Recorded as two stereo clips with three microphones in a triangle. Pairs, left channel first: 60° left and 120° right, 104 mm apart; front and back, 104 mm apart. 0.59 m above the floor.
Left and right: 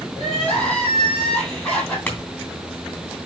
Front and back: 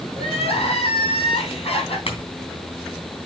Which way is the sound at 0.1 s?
25° right.